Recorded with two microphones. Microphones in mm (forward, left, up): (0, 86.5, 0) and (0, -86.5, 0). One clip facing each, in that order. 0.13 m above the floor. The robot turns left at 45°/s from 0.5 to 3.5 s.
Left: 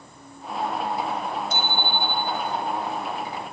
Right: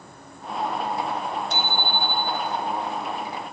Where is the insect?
115° right, 9.5 m; by 3.5 s 110° left, 9.5 m.